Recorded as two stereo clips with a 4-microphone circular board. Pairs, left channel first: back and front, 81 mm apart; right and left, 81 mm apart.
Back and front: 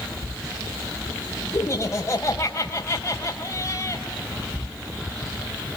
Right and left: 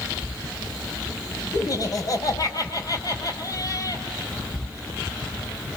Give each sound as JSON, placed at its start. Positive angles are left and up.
{"t": 1.5, "sound": "laughter", "azimuth_deg": -130, "distance_m": 4.0}